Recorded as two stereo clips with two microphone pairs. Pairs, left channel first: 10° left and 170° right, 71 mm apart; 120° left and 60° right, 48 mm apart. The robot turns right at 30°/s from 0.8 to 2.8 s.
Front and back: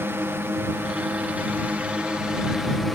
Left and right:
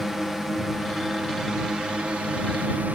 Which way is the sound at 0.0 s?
140° right.